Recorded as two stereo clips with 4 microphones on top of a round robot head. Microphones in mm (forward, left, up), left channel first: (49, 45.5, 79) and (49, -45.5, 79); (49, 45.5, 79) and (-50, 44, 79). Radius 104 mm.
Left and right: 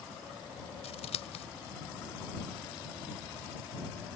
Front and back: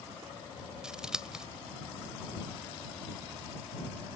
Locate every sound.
0.8 s scissors: 100° left